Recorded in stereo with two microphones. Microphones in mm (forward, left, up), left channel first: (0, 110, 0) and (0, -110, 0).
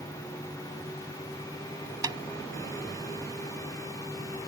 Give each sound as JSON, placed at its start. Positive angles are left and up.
{"t": 2.0, "sound": "a snare drum", "side_deg": -20}